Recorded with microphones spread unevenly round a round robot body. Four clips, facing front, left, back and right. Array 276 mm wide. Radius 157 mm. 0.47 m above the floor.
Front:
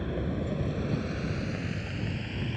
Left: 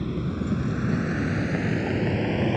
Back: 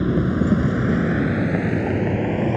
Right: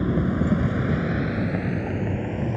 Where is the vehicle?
155° right; by 2.6 s 150° left.